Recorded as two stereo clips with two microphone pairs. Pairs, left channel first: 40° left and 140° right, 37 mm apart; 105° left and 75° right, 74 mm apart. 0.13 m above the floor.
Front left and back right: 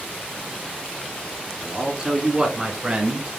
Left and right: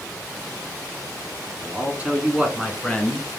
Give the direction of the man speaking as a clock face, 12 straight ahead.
3 o'clock.